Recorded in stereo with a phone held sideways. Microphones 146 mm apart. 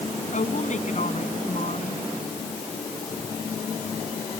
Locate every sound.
0.3 s a woman speaking: 55° left (ahead or behind)